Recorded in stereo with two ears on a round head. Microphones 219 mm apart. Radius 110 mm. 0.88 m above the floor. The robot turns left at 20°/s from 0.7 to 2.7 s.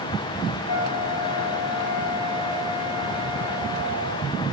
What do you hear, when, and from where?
0.7 s a flute: 115° left, 6.5 m; by 4.3 s 75° left, 6.5 m